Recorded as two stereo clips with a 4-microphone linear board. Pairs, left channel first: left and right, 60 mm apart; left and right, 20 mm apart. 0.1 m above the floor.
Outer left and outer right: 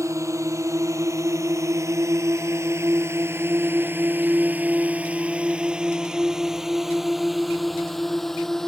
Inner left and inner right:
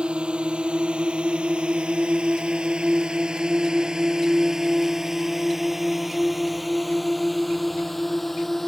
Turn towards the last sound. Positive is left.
turn(degrees=5)  # may be behind; listen again after turning